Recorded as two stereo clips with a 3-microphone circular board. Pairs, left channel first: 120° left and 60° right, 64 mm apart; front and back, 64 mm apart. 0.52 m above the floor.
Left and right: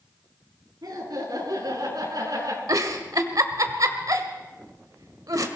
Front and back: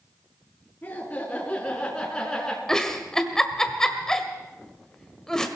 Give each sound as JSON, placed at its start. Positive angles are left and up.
{"t": 0.8, "sound": "laughter", "azimuth_deg": -65, "distance_m": 5.5}
{"t": 2.7, "sound": "a giggle", "azimuth_deg": -80, "distance_m": 1.5}